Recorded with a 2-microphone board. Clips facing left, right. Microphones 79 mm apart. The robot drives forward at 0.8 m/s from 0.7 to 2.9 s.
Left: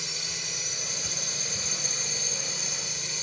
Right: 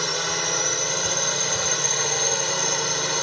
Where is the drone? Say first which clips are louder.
Right 14 dB; 65° right (ahead or behind); by 3.2 s 70° right (ahead or behind).